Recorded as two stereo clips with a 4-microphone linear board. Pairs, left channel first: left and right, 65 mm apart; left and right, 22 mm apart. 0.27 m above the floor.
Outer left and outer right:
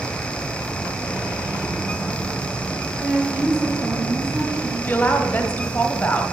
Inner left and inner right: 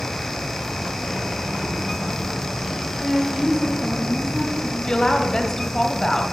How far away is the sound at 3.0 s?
About 1.2 m.